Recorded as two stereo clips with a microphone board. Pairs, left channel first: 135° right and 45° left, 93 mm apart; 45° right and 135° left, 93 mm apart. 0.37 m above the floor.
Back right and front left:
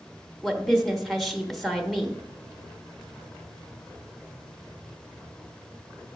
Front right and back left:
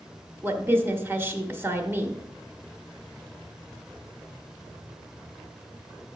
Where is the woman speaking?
135° left, 0.8 m.